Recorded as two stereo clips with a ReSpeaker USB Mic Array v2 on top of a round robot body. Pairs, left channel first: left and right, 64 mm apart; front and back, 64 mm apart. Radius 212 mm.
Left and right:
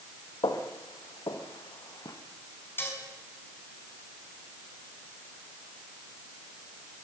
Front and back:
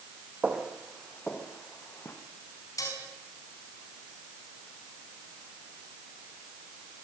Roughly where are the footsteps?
Left.